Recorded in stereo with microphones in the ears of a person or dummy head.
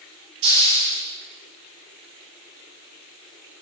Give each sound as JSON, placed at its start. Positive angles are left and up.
{"t": 0.4, "sound": "a hiss", "side_deg": -75, "distance_m": 6.0}